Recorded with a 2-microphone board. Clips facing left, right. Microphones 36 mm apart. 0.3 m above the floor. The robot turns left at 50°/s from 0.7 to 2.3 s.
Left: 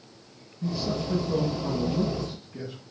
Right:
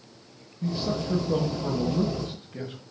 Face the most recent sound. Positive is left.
turn(degrees=-125)